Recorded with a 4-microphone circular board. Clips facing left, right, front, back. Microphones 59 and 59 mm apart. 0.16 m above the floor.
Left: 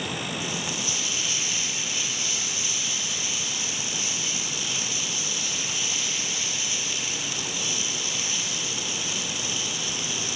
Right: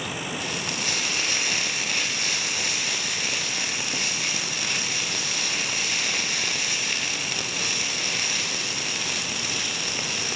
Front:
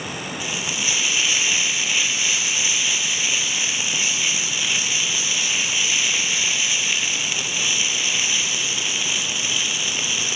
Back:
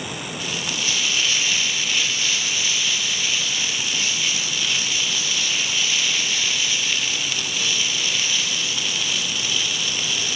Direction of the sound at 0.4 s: 75° right.